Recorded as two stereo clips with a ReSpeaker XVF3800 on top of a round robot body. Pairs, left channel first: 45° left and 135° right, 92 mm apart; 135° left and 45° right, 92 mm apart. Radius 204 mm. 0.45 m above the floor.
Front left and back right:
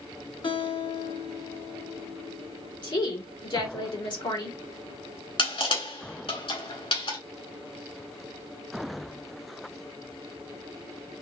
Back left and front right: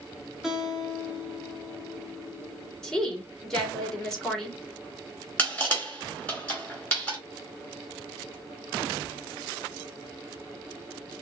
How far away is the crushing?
About 3 m.